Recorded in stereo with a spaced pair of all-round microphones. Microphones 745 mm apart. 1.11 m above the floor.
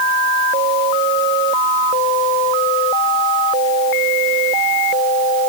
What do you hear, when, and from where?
Only background noise.